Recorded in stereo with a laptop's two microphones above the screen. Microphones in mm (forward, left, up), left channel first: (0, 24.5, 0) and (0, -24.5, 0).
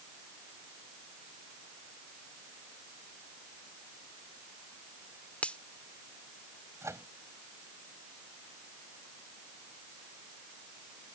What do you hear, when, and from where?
5.4 s a finger snap: 25° left (ahead or behind)
6.8 s a microwave: 85° right